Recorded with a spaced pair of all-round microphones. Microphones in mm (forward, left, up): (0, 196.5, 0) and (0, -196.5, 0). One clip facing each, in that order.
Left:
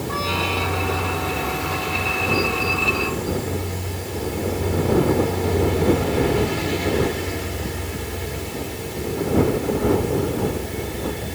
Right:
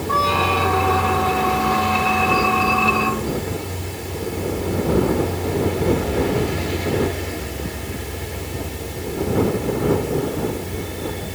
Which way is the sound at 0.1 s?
70° right (ahead or behind).